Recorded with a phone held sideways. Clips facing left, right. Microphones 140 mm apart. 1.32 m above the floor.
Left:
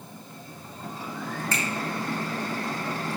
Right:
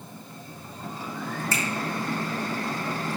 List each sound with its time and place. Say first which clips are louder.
1.5 s a finger snap: even; 5° right (ahead or behind), 1.9 m